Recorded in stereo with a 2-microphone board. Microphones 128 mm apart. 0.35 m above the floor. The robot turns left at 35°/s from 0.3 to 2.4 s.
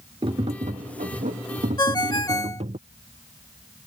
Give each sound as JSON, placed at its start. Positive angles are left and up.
{"t": 0.2, "sound": "tapping", "azimuth_deg": -45}
{"t": 1.8, "sound": "a ringtone", "side_deg": 35}